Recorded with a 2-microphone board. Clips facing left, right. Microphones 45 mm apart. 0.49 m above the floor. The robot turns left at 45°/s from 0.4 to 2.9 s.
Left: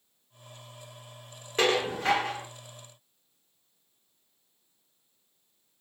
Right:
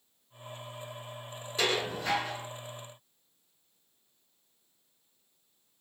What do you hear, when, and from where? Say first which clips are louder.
1.6 s dishes clattering: left 5 dB; 125° left, 1.2 m; by 2.5 s 85° left, 1.2 m